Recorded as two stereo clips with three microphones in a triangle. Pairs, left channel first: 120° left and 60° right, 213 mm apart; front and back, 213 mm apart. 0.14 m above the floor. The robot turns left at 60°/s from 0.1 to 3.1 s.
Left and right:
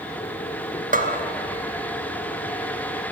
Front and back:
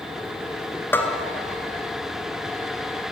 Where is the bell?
75° right, 2 m; by 1.2 s 90° right, 2 m.